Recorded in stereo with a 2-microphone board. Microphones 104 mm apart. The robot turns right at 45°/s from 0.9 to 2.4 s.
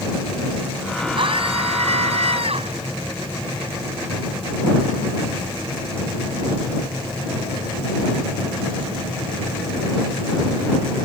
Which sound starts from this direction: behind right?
A scream, at 1.2 s.